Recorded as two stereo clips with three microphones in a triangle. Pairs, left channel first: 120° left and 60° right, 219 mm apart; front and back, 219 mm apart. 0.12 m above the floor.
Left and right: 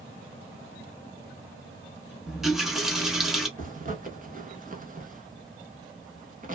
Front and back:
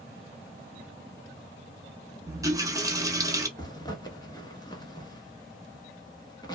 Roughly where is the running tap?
Behind right.